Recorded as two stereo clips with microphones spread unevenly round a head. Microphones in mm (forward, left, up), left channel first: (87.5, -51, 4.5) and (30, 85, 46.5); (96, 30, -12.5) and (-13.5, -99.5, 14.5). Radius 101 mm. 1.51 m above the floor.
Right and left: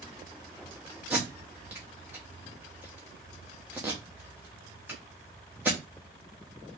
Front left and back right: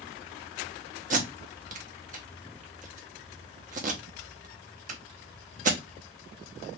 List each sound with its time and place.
1.1 s tape being pulled: 175° right, 0.6 m